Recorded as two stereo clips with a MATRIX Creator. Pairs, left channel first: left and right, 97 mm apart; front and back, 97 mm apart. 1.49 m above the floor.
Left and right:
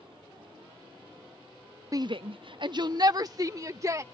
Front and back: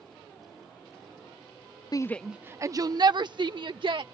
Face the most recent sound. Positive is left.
turn(degrees=-145)